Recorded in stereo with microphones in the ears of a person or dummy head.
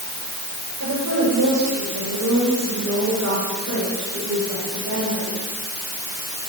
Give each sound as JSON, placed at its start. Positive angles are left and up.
{"t": 0.8, "sound": "a woman speaking", "side_deg": -80, "distance_m": 8.5}